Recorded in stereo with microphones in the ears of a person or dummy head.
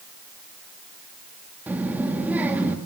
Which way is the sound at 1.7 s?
10° right (ahead or behind).